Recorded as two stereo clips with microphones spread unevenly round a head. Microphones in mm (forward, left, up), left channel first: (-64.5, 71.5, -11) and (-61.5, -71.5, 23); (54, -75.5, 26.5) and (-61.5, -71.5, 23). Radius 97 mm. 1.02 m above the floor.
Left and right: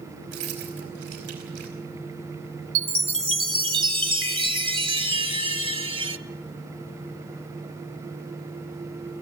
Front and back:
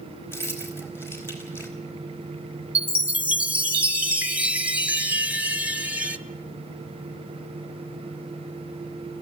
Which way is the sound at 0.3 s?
70° right.